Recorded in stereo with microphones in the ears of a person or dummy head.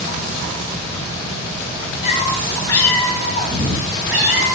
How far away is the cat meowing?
About 1.4 m.